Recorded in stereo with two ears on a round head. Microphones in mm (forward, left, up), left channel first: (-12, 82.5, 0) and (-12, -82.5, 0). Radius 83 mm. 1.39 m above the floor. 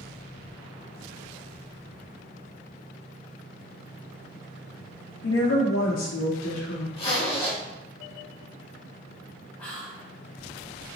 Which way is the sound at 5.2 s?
75° left (ahead or behind).